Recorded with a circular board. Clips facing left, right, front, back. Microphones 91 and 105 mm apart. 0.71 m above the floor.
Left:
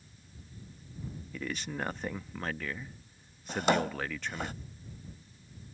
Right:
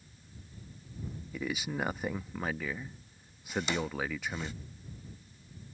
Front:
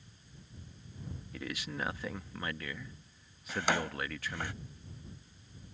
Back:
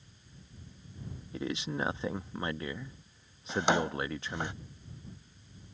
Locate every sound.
1.3 s a man speaking: 160° right
3.5 s a drawer: 115° left